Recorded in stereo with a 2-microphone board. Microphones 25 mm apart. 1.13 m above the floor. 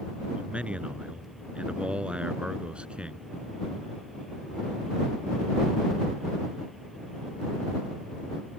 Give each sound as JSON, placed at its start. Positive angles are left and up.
{"t": 0.3, "sound": "a man speaking", "side_deg": -55}